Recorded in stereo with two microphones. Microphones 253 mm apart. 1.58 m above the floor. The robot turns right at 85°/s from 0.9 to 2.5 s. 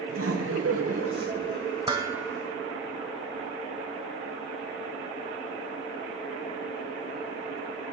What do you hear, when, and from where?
0.1 s laughter: 75° right, 0.8 m; by 1.6 s 15° right, 0.8 m
1.9 s dishes clattering: 20° right (ahead or behind), 0.6 m; by 2.4 s centre (ahead or behind), 0.6 m